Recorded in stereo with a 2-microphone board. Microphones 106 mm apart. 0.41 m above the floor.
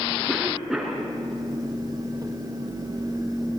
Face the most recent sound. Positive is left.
turn(degrees=0)  # may be behind; listen again after turning